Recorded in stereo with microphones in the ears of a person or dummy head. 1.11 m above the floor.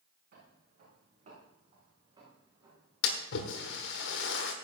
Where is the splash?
70° left (ahead or behind), 1.5 m.